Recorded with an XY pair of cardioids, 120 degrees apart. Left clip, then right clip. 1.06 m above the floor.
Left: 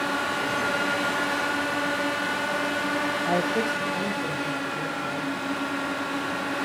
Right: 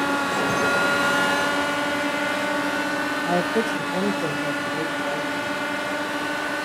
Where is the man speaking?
5° right, 0.6 m; by 5.6 s 65° right, 2 m.